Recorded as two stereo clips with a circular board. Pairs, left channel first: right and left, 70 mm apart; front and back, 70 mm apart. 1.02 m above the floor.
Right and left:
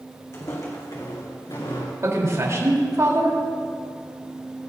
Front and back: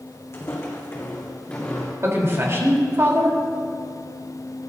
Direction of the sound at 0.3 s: 45° right.